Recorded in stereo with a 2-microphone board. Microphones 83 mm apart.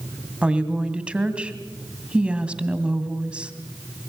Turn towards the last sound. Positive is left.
turn(degrees=-15)  # may be behind; listen again after turning